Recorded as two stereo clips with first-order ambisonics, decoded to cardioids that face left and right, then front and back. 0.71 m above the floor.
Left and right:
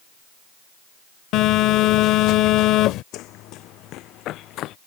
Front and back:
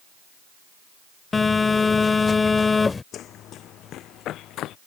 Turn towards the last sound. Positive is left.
turn(degrees=45)